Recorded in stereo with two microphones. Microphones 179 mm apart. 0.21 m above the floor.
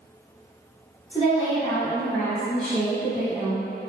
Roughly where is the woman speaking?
Left.